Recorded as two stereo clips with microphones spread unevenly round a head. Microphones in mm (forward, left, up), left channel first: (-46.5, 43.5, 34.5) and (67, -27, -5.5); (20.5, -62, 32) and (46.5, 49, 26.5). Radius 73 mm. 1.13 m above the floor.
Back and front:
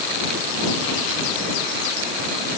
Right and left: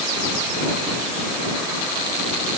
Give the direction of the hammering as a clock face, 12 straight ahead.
I don't hear hammering.